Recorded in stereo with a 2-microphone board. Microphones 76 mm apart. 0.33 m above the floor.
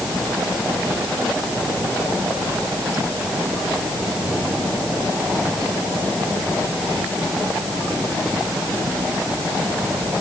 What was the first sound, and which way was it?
Only background noise.